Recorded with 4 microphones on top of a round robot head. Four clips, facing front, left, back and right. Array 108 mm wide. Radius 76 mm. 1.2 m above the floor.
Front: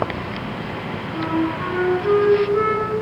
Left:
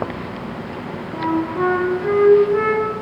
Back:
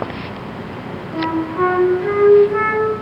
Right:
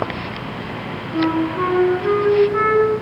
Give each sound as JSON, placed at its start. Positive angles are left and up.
{"t": 1.1, "sound": "a flute", "azimuth_deg": 150, "distance_m": 6.0}